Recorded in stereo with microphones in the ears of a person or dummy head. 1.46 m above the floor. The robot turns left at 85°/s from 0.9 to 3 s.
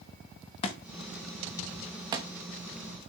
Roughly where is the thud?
Left.